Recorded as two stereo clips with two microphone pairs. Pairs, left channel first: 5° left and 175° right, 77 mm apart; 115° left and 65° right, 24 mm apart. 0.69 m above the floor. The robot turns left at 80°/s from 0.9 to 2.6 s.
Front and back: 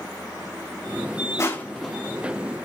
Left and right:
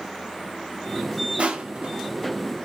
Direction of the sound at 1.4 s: 45° right.